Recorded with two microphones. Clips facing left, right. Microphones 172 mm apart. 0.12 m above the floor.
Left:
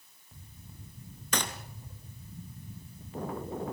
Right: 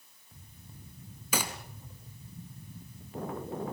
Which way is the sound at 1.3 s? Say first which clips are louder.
Even; 5° right (ahead or behind).